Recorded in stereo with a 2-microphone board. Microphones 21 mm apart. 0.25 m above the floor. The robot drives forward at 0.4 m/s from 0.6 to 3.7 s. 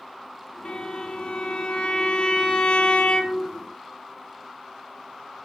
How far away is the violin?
About 2 m.